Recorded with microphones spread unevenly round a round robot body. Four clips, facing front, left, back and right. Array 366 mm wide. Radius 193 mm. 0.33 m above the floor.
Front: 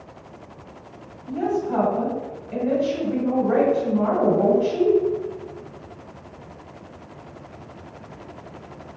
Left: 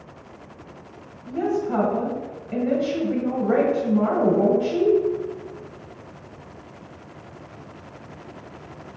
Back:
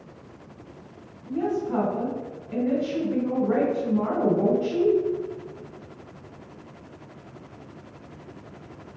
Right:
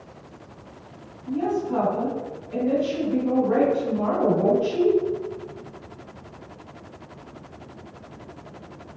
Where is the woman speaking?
100° left, 1.9 m.